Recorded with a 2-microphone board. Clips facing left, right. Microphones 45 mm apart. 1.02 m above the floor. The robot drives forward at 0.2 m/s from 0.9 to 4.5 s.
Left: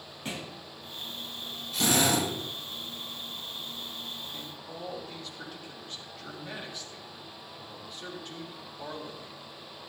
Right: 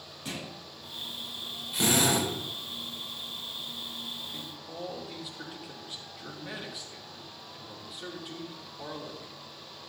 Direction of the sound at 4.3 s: 10° right (ahead or behind).